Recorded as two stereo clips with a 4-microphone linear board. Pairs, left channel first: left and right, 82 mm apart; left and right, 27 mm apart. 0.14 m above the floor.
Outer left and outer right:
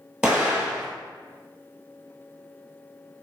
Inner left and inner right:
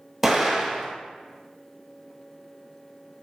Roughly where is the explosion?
Centre.